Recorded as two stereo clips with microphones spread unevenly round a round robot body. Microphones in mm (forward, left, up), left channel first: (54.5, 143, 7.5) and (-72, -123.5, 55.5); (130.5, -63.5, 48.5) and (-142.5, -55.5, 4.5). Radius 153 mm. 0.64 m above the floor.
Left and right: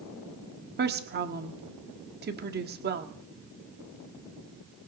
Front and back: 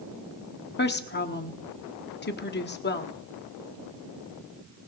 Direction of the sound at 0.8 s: 55° right.